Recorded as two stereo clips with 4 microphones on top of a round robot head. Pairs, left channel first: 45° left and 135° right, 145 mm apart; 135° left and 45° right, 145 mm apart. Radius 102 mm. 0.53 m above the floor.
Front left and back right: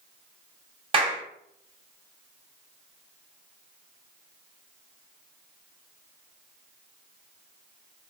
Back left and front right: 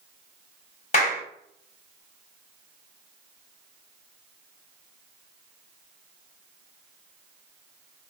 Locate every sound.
0.9 s a clap: 170° left, 3 m